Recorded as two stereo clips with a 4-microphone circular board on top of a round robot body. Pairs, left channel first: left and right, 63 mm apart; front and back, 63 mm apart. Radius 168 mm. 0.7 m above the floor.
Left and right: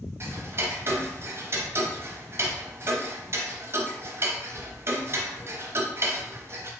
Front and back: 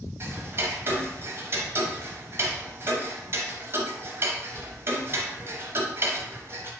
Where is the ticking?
135° right, 0.8 m.